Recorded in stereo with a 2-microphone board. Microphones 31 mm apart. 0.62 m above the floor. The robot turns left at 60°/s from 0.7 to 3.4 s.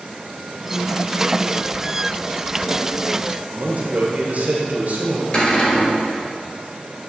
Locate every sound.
3.5 s a man speaking: 55° right (ahead or behind), 1.8 m
5.3 s a cupboard door: 35° left (ahead or behind), 3 m